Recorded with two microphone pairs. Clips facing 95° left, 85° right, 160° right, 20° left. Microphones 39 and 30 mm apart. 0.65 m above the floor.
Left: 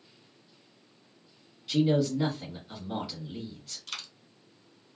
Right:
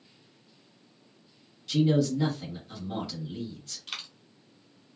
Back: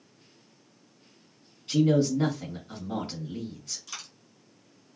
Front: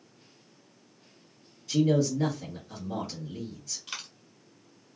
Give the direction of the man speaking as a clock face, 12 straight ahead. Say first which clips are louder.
Right 1 dB, back 2 dB; 6 o'clock.